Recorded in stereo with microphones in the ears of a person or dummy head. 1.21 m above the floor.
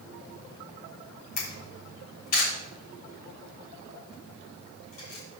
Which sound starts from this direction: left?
A camera shutter, at 1.4 s.